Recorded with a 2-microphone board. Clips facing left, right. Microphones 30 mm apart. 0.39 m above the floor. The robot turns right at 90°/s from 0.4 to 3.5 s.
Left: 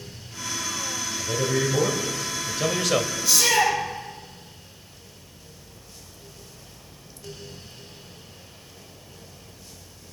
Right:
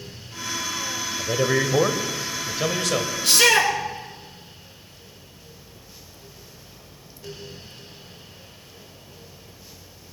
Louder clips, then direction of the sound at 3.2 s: Right 4 dB; 70° right (ahead or behind).